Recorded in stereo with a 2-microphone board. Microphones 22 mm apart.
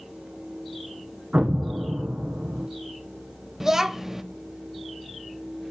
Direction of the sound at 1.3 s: 75° right (ahead or behind).